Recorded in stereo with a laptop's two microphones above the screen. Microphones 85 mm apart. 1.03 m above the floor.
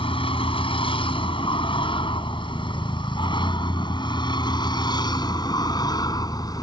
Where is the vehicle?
85° left; by 6.6 s 45° left (ahead or behind).